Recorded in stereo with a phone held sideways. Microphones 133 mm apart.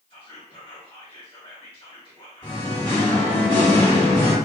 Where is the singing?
35° left (ahead or behind), 1.8 m.